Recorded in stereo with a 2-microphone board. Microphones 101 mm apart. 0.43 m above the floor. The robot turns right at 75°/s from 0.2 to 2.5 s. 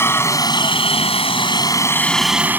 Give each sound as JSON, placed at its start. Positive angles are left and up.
{"t": 0.0, "sound": "a helicopter", "azimuth_deg": 25}